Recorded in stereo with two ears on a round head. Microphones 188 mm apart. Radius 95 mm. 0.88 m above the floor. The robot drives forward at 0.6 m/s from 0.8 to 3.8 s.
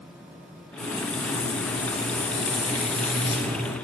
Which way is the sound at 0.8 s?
40° left (ahead or behind).